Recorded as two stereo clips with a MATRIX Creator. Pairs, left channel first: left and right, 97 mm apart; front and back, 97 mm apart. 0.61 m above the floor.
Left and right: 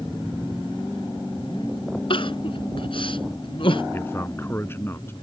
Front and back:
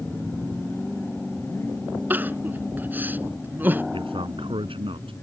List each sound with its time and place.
2.1 s crying: 110° left
3.9 s a man speaking: 155° left